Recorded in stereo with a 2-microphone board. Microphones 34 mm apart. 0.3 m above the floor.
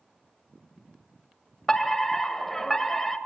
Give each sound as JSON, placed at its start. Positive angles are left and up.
{"t": 1.7, "sound": "a fire alarm", "side_deg": 10, "distance_m": 2.0}